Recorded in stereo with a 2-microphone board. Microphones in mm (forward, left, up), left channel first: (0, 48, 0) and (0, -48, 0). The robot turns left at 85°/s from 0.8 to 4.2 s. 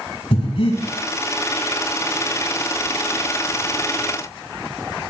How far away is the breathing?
About 4.5 m.